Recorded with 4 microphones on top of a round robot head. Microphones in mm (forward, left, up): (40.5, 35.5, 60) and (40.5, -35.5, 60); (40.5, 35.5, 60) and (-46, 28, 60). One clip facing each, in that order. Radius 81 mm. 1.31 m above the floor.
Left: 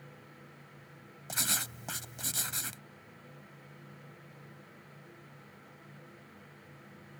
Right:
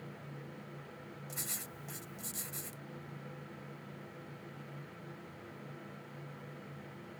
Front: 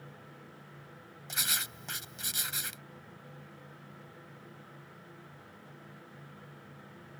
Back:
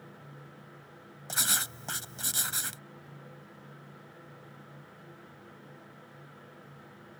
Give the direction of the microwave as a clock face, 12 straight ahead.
I don't hear a microwave.